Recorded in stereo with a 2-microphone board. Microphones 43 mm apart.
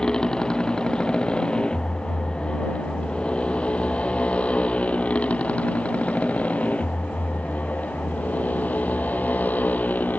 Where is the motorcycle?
20° left (ahead or behind); by 10.2 s 45° left (ahead or behind).